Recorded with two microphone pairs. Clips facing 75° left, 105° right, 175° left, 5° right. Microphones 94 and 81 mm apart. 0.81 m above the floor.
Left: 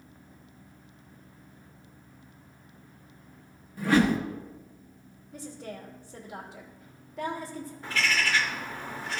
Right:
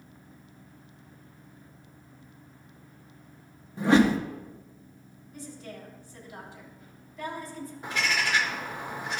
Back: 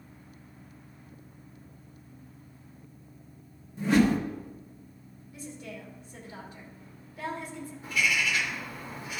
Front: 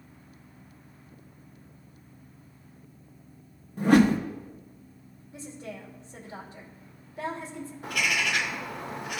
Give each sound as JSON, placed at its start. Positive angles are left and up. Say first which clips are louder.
{"t": 3.8, "sound": "a whoosh", "louder": "right 2 dB, front 3 dB", "azimuth_deg": -40, "distance_m": 0.9}
{"t": 5.3, "sound": "a woman speaking", "louder": "left 2 dB, front 2 dB", "azimuth_deg": 55, "distance_m": 2.0}
{"t": 7.8, "sound": "a bird", "louder": "even, even", "azimuth_deg": -35, "distance_m": 0.8}